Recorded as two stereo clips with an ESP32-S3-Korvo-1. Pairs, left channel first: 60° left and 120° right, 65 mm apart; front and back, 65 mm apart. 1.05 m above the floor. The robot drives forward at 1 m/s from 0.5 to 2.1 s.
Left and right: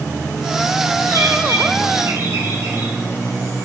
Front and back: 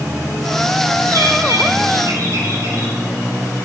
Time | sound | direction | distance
1.1 | a bird | 150° right | 2.5 m